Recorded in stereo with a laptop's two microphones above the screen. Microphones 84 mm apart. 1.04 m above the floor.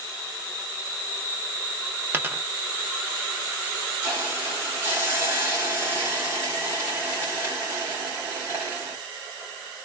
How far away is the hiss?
About 1.5 m.